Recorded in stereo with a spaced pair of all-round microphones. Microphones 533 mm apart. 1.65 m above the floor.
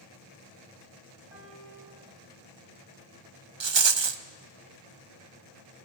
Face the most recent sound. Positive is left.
turn(degrees=-55)  # may be behind; listen again after turning